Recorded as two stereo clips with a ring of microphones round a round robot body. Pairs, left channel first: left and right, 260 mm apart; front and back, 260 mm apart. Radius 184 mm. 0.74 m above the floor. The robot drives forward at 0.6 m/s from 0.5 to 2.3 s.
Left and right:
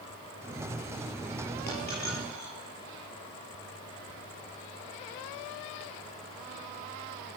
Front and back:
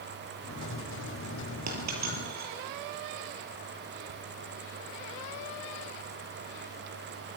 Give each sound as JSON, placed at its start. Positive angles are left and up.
{"t": 1.7, "sound": "a dropped coin", "azimuth_deg": 160, "distance_m": 7.0}